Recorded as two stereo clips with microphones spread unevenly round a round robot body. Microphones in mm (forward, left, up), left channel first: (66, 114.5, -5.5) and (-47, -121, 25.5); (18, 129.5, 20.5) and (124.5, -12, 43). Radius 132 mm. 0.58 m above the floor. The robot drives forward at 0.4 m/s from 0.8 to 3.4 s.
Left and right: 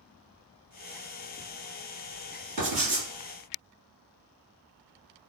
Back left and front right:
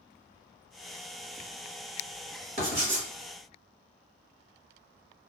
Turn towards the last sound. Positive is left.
turn(degrees=-105)